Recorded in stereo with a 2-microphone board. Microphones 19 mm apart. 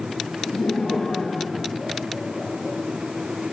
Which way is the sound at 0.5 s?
75° left (ahead or behind).